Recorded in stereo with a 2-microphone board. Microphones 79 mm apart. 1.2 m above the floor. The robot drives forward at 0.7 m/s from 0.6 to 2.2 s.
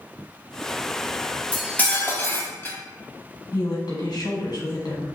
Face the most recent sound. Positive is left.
turn(degrees=60)  # may be behind; listen again after turning